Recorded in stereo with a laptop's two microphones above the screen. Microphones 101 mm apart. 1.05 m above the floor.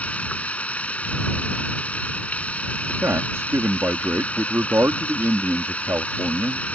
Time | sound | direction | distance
0.0 | running water | 15° left (ahead or behind) | ?
2.9 | a man speaking | 25° right (ahead or behind) | ?